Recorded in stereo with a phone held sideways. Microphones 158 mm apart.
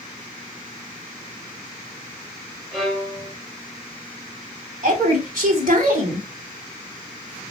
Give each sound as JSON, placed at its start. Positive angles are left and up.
{"t": 2.7, "sound": "a violin", "side_deg": 0, "distance_m": 2.5}
{"t": 4.8, "sound": "a woman speaking", "side_deg": -65, "distance_m": 3.0}